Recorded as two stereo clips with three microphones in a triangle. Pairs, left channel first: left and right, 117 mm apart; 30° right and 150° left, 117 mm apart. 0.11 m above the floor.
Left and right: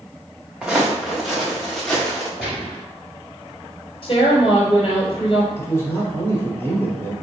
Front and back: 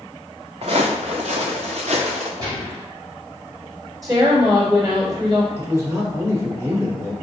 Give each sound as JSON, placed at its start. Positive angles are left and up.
{"t": 0.6, "sound": "footsteps", "azimuth_deg": -170, "distance_m": 0.8}
{"t": 2.4, "sound": "a gunshot", "azimuth_deg": 180, "distance_m": 1.9}
{"t": 4.0, "sound": "a woman speaking", "azimuth_deg": 100, "distance_m": 1.4}
{"t": 5.6, "sound": "a man speaking", "azimuth_deg": 125, "distance_m": 1.6}